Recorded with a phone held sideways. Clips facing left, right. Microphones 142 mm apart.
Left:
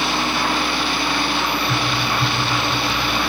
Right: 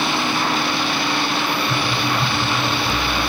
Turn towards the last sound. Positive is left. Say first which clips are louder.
# right 1 dB
turn(degrees=30)  # may be behind; listen again after turning